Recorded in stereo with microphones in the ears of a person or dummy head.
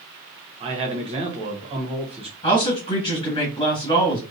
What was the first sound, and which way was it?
A man speaking, 35° right (ahead or behind).